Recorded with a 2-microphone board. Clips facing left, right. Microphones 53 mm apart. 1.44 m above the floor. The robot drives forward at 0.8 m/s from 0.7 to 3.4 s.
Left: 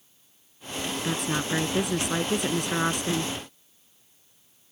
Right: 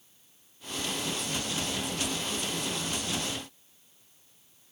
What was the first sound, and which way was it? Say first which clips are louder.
A woman speaking: left 6 dB; 70° left (ahead or behind).